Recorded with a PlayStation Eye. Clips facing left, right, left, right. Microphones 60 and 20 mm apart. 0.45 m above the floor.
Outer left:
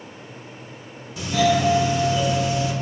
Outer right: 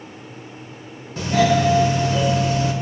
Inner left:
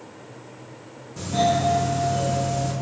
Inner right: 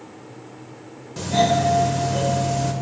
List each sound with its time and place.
1.2 s a doorbell: 45° right (ahead or behind), 1.7 m